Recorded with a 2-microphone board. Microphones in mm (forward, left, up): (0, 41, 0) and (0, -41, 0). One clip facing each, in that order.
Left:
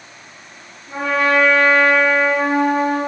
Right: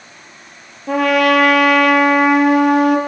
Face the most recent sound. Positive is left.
turn(degrees=-85)